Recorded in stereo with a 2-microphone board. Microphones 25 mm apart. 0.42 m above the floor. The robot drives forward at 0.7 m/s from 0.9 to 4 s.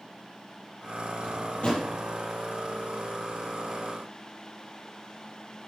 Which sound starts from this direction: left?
A drawer, at 1.2 s.